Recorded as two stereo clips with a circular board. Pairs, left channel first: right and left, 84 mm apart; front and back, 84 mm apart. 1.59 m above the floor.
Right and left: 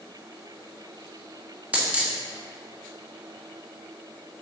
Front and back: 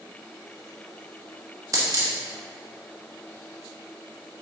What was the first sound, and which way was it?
A dropped coin, 155° left.